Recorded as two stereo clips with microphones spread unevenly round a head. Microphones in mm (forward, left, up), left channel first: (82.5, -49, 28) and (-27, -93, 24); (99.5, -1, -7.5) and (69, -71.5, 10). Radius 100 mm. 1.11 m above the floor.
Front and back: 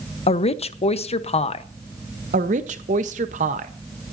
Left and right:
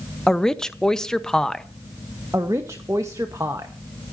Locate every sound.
0.3 s a woman speaking: 15° right, 1.0 m
2.3 s a woman speaking: 170° left, 0.9 m